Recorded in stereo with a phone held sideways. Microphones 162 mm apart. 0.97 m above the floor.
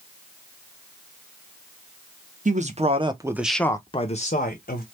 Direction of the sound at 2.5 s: 50° right (ahead or behind).